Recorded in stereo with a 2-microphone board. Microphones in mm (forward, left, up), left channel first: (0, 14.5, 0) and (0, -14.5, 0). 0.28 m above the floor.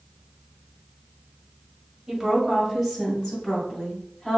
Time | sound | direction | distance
2.1 | a woman speaking | 15° right (ahead or behind) | 1.4 m